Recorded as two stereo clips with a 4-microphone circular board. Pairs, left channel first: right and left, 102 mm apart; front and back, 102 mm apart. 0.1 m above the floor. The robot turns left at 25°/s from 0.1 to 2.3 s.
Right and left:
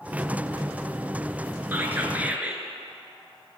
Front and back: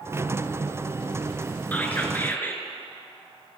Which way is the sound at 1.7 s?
50° left.